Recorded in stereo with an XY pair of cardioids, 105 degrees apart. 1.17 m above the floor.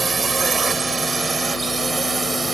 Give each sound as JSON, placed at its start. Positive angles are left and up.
{"t": 0.0, "sound": "a drone", "azimuth_deg": -30}